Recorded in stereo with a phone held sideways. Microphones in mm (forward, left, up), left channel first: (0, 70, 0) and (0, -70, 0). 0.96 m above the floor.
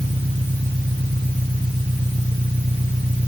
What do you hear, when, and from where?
0.0 s an engine running: 60° right (ahead or behind)